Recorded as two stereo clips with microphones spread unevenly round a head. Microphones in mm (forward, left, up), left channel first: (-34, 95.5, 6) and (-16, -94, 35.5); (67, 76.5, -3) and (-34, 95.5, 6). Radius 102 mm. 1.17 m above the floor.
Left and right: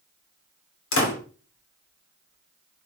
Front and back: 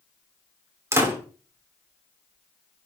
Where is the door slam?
105° left, 3 m.